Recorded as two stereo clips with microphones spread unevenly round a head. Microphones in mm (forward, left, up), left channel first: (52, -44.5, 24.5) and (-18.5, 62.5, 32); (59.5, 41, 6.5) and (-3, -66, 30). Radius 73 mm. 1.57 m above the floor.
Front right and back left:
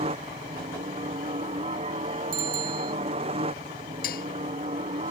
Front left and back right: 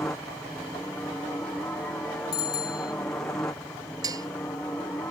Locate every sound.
0.0 s a helicopter: 135° left; by 5.1 s 130° left
2.3 s a bicycle bell: 125° left
4.0 s dishes clattering: 60° right